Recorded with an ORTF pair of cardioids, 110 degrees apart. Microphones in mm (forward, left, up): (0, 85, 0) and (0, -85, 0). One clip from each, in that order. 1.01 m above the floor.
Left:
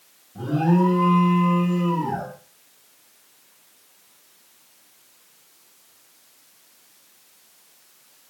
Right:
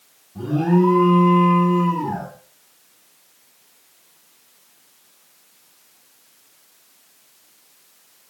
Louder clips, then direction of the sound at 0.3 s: Right 2 dB; straight ahead.